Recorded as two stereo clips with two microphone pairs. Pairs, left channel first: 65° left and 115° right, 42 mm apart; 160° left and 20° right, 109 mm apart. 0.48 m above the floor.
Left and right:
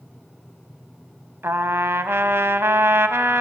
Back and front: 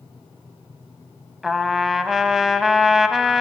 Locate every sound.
1.4 s a trumpet: 105° right, 0.8 m